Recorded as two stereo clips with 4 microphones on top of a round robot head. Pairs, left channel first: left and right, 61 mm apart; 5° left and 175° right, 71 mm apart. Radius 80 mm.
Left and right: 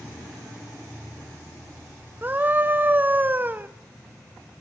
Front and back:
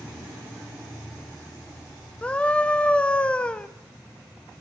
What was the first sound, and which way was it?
A scream, 60° right.